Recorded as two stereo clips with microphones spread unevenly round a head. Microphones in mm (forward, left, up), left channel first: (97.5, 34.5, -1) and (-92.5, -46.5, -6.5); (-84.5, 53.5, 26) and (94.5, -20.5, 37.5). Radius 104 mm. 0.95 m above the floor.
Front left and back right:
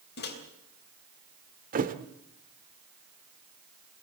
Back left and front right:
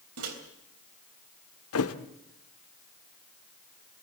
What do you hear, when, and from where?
0.2 s a microwave: 20° right, 3.5 m
1.7 s a thud: 150° left, 1.4 m